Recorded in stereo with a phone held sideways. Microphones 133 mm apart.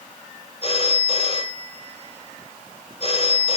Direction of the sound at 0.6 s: 45° left (ahead or behind).